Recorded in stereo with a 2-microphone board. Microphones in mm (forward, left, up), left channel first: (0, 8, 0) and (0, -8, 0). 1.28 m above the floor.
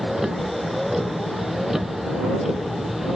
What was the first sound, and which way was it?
A vehicle, 25° right (ahead or behind).